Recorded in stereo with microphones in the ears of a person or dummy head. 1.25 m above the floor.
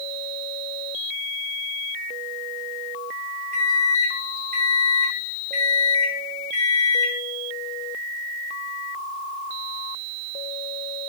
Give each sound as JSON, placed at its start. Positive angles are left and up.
{"t": 3.5, "sound": "a microwave", "side_deg": -55, "distance_m": 1.5}